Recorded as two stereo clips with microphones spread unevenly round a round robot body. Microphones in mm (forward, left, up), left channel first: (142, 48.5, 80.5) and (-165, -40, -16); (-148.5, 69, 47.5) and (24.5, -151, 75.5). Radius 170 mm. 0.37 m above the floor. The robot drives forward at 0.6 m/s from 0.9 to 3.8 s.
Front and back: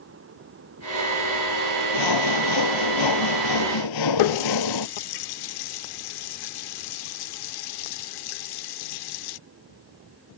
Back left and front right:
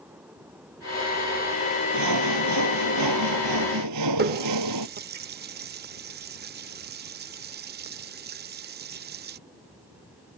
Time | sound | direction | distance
1.9 | sawing | 10° right | ?
4.2 | a running tap | straight ahead | ?